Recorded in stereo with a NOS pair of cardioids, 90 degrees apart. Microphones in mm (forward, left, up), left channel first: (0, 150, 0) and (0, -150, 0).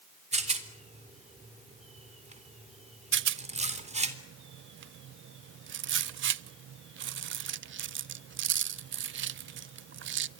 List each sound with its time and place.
0.3 s a rattle: 20° right, 3.5 m
3.1 s a rattle: 40° right, 0.5 m